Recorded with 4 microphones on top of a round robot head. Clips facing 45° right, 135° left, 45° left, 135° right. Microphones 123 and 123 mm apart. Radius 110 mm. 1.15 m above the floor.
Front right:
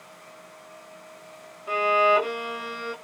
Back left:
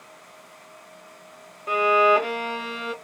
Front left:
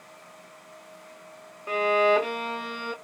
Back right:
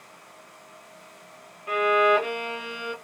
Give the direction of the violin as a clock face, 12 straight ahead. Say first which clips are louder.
Back left 2 dB, back right 1 dB; 9 o'clock.